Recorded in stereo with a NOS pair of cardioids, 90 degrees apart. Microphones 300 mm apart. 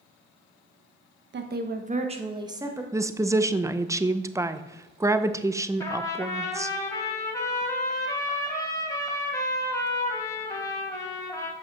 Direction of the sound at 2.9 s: 10° right.